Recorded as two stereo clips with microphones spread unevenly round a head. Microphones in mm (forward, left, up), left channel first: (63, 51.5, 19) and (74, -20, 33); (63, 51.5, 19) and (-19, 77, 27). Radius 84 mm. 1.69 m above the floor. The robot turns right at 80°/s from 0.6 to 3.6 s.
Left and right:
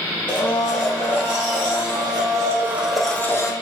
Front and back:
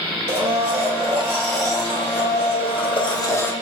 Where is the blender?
Straight behind, 1.1 m; by 3.5 s 50° left, 1.1 m.